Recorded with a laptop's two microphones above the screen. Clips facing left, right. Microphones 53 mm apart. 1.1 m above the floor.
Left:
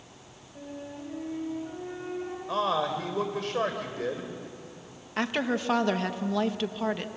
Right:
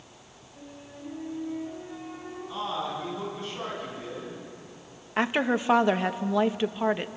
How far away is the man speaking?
About 3.5 m.